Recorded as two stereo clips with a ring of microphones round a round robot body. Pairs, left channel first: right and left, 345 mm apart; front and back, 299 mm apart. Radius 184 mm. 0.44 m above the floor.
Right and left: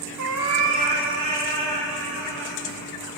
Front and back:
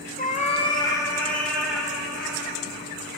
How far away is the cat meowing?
About 0.9 m.